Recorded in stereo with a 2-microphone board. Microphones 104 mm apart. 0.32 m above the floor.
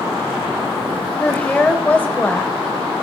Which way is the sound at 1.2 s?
15° left (ahead or behind).